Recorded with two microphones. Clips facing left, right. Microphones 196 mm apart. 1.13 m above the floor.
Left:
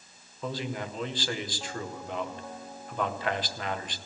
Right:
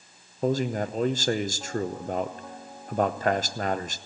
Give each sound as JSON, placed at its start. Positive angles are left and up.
{"t": 0.4, "sound": "a man speaking", "side_deg": -45, "distance_m": 0.8}